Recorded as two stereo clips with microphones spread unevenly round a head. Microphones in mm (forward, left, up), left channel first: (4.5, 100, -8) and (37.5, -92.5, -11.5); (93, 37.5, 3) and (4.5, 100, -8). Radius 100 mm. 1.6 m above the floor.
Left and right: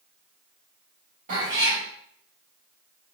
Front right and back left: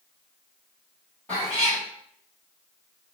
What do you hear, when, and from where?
1.3 s a cat meowing: 100° right, 1.4 m